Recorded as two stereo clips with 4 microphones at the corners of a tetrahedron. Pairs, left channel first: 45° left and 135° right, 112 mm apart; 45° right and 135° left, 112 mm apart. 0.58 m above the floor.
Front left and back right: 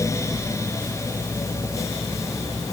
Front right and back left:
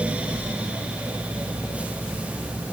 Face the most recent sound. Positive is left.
No sound to turn to.